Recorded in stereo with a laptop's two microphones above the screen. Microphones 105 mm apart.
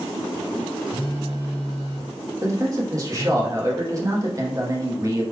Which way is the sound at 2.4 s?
35° right (ahead or behind).